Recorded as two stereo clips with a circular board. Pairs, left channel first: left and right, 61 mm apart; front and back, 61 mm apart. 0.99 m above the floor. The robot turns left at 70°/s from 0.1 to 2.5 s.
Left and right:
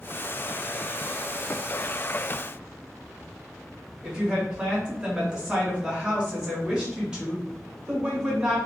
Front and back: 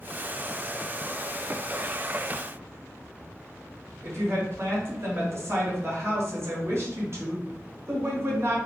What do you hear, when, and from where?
4.0 s a woman speaking: 160° right, 1.0 m